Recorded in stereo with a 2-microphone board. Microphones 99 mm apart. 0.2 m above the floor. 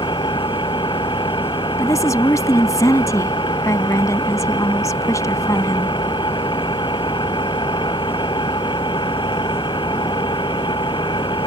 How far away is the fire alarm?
No fire alarm in this recording.